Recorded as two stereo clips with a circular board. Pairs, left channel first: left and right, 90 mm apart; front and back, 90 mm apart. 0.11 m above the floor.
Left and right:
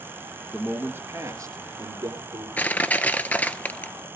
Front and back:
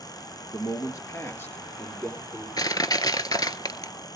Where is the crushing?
25° left, 0.8 m.